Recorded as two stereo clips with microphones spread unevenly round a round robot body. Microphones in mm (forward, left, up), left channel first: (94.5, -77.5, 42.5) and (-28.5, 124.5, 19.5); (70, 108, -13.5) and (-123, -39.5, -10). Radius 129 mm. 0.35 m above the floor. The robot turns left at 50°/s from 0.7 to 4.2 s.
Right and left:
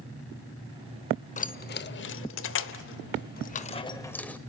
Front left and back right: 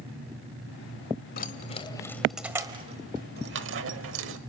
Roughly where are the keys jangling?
Ahead.